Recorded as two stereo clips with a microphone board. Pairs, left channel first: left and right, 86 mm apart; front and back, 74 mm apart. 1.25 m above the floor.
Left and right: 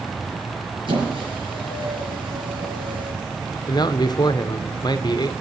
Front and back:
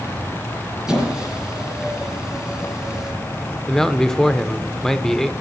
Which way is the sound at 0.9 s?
100° right.